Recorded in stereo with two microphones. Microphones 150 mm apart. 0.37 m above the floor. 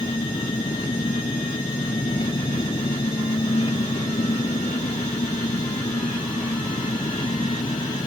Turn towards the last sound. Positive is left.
turn(degrees=35)  # may be behind; listen again after turning